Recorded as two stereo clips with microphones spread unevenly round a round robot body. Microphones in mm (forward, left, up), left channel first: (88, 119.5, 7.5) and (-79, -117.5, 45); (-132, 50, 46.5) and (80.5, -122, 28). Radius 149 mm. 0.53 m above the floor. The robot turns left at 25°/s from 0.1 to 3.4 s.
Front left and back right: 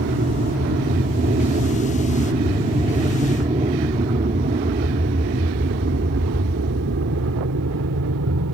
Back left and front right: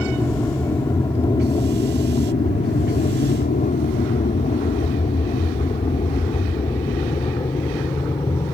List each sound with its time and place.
0.0 s an aircraft: 140° right; by 8.5 s 145° right